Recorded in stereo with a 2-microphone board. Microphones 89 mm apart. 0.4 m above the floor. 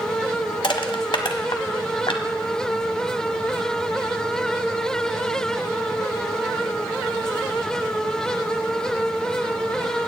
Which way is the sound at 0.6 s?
70° left (ahead or behind).